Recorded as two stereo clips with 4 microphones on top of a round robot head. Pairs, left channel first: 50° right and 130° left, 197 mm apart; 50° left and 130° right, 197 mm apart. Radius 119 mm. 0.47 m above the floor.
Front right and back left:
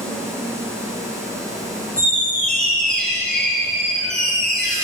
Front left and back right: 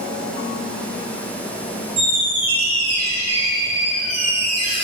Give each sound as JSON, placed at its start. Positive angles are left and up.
{"t": 2.0, "sound": "a squeak", "azimuth_deg": -135, "distance_m": 2.0}